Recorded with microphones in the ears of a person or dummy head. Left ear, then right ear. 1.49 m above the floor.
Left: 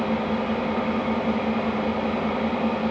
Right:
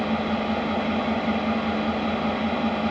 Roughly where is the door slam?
I don't hear a door slam.